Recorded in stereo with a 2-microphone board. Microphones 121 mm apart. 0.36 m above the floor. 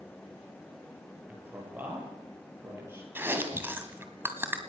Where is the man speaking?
10° right (ahead or behind), 8 m; by 3.0 s 20° right (ahead or behind), 8.5 m.